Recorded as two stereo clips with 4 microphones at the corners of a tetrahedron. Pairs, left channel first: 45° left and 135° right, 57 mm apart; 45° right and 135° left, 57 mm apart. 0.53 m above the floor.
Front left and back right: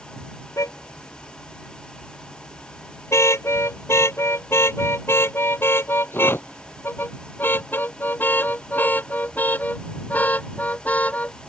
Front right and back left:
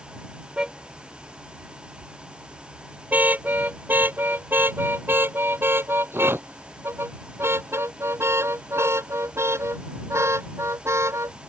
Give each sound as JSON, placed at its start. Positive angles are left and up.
{"t": 0.6, "sound": "a car horn", "azimuth_deg": 60}